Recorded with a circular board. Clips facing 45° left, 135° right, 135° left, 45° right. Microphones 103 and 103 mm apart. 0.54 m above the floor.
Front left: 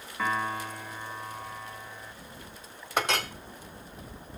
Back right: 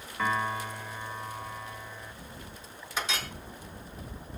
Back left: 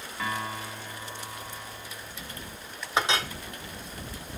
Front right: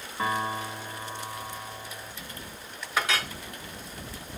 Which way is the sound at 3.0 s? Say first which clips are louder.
Front left 6 dB, back left 2 dB; 70° left.